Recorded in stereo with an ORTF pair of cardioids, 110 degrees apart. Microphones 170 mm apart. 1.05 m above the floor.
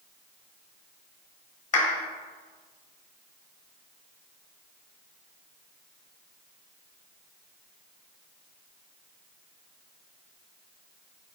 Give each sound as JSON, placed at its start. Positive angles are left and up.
{"t": 1.7, "sound": "a clap", "azimuth_deg": 45, "distance_m": 1.7}